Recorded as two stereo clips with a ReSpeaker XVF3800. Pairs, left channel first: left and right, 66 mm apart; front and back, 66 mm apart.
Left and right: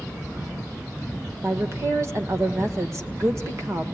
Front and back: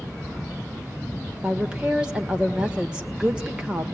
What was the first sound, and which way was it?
A woman speaking, 110° right.